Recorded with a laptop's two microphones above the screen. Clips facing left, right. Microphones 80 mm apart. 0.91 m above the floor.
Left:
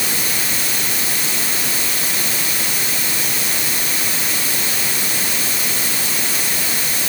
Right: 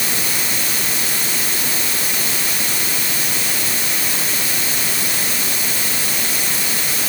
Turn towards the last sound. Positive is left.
No sound to turn to.